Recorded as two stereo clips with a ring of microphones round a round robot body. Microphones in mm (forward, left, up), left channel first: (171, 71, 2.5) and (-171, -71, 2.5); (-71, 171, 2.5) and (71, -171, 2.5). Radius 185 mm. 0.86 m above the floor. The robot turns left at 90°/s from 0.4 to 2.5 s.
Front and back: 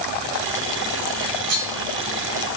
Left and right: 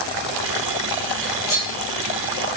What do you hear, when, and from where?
1.2 s cutlery clinking: 125° right, 2.5 m; by 1.7 s 170° right, 2.5 m